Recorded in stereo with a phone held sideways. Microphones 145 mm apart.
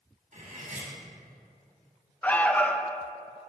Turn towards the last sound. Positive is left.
turn(degrees=10)  # may be behind; listen again after turning